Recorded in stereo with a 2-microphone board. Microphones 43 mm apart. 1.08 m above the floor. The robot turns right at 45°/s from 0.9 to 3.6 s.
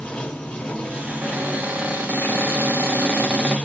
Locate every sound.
0.0 s running water: 30° left, 0.8 m; by 3.7 s 150° left, 0.8 m
1.1 s a cupboard door: 140° right, 1.3 m; by 3.6 s 30° right, 1.3 m